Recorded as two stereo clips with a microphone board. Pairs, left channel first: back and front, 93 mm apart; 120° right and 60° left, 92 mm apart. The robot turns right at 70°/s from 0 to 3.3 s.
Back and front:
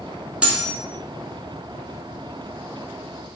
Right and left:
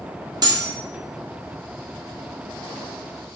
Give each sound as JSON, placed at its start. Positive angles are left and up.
{"t": 0.4, "sound": "cutlery clinking", "azimuth_deg": 70, "distance_m": 0.9}